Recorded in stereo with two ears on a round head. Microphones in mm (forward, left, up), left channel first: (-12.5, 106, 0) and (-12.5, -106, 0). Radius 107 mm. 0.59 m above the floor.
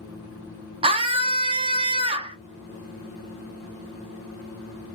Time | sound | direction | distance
0.8 | a scream | 25° right (ahead or behind) | 0.7 m